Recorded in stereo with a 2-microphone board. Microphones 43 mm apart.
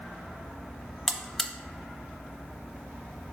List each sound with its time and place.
1.1 s a buzzer: 5° left (ahead or behind), 0.5 m